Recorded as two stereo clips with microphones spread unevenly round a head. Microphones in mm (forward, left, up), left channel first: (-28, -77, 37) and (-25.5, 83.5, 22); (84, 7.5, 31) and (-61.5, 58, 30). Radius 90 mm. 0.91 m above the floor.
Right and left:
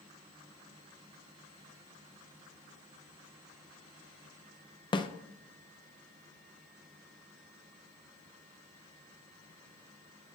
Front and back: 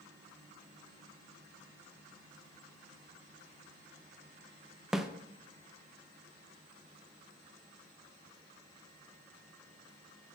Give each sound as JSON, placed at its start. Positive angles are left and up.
{"t": 4.9, "sound": "a snare drum", "azimuth_deg": -115, "distance_m": 0.6}